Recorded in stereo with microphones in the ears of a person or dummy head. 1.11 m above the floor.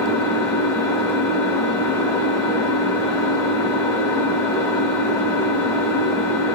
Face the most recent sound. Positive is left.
turn(degrees=15)  # may be behind; listen again after turning